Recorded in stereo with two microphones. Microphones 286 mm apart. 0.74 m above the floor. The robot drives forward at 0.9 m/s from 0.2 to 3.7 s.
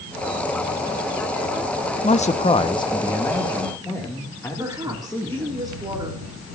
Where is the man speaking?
25° left (ahead or behind), 0.5 m; by 5.6 s 10° left (ahead or behind), 1.5 m.